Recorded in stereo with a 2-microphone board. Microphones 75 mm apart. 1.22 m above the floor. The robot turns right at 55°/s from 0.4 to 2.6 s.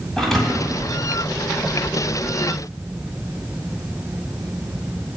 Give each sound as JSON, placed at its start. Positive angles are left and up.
{"t": 0.2, "sound": "a thud", "side_deg": 5, "distance_m": 2.5}